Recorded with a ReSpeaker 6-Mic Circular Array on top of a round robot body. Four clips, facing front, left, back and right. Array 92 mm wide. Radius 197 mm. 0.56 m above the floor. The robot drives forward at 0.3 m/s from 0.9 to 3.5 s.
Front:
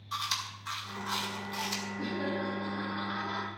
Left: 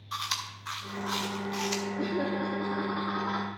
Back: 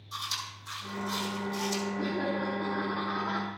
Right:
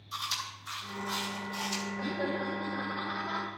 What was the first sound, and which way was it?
Chewing, 60° left.